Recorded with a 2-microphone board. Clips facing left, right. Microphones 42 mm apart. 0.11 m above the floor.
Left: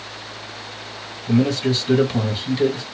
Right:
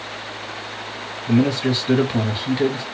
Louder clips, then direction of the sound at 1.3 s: Even; 20° right (ahead or behind).